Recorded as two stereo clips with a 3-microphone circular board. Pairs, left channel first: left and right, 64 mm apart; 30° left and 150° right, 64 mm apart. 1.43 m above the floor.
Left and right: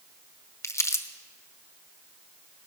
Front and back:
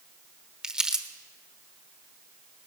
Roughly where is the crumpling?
Behind left.